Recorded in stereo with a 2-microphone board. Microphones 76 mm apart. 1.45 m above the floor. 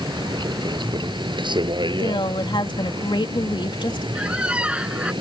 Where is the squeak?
15° right (ahead or behind).